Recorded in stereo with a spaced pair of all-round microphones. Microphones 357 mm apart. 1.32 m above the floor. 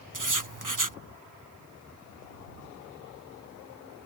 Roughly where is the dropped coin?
I don't hear a dropped coin.